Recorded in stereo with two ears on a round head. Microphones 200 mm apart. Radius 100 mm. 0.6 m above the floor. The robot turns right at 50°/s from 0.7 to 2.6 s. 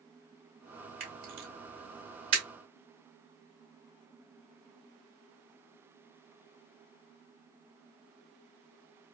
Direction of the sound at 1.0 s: 40° right (ahead or behind).